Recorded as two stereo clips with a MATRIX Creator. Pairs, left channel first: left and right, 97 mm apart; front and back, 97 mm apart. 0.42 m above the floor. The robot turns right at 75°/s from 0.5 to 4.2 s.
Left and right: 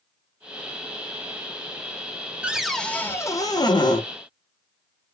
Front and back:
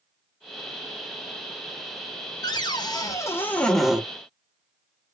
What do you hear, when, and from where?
2.4 s a cupboard door: 15° right, 0.6 m; by 4.0 s 105° left, 0.6 m